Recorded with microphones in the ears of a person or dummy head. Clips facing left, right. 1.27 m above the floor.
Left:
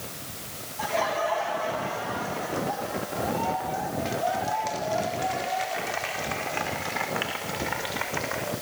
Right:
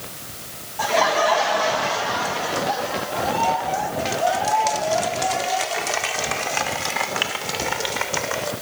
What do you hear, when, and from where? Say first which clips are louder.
0.8 s laughter: right 7 dB; 65° right (ahead or behind), 1.9 m; by 8.5 s 55° right (ahead or behind), 6.5 m